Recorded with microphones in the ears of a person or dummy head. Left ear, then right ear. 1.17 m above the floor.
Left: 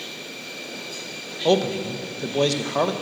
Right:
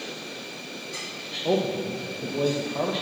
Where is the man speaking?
50° left (ahead or behind), 0.7 m.